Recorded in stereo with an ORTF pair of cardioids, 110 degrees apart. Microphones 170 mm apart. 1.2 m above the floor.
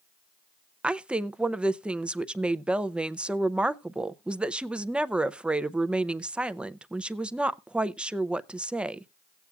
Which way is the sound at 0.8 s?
5° right.